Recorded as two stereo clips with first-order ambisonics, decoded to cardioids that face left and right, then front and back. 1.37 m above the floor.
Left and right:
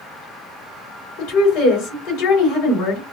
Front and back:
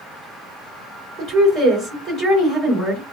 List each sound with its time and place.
1.2 s a woman speaking: 95° left, 2.5 m